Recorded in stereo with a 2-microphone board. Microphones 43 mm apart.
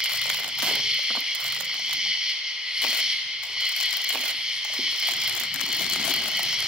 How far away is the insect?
About 2 m.